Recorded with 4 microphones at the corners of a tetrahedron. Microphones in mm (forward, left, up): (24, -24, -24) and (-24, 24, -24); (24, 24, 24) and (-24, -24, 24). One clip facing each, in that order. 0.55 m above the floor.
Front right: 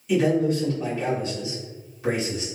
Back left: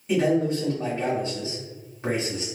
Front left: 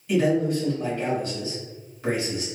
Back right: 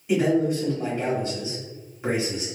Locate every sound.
0.1 s a man speaking: 165° left, 1.6 m